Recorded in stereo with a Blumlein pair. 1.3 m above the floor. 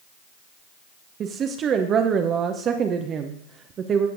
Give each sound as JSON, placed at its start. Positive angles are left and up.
{"t": 1.2, "sound": "a woman speaking", "azimuth_deg": -25, "distance_m": 0.7}